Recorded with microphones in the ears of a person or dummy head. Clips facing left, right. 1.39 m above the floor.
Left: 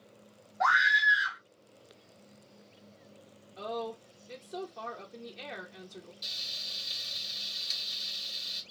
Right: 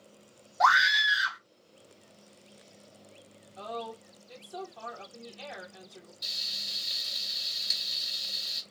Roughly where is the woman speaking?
Left.